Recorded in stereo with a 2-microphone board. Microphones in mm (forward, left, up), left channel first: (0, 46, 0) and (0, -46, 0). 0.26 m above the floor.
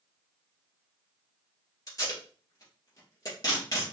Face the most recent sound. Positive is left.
turn(degrees=40)  # may be behind; listen again after turning